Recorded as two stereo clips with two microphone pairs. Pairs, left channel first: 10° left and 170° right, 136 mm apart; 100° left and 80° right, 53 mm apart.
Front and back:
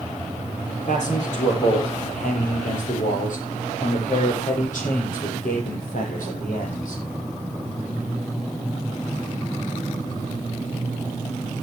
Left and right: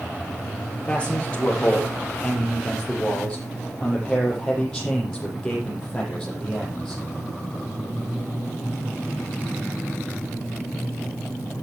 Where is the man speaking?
35° left, 6.5 m; by 7.0 s 25° left, 10 m.